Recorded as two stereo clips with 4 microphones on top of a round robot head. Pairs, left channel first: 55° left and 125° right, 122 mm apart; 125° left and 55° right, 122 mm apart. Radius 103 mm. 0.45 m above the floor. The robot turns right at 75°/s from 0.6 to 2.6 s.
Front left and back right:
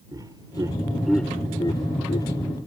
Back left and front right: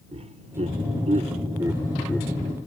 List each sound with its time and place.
0.1 s laughter: 70° right; by 2.3 s 55° left